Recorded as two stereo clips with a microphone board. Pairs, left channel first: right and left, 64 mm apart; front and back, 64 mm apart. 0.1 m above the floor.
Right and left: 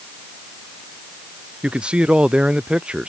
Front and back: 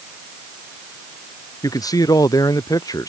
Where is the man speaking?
15° left.